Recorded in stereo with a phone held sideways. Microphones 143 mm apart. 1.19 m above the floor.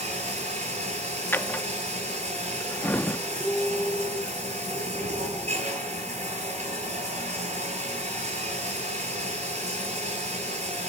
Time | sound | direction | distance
0.0 | running water | 50° right (ahead or behind) | 9.5 m
1.3 | a drawer | 15° left (ahead or behind) | 0.7 m
3.4 | a piano | centre (ahead or behind) | 1.5 m